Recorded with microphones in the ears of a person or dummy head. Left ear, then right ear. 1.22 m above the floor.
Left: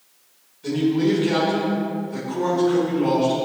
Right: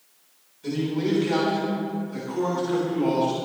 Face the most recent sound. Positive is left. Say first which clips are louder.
# left 6 dB
turn(degrees=-5)  # may be behind; listen again after turning